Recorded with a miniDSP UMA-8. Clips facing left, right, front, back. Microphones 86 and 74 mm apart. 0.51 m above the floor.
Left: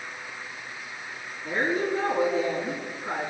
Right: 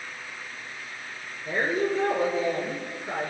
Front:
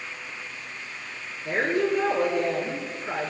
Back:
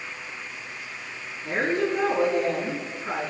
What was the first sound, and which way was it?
A woman speaking, 125° left.